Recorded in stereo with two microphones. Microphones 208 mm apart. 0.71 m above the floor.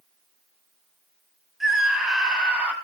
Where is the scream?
Centre (ahead or behind), 4.5 m; by 2.7 s 5° right (ahead or behind), 5 m.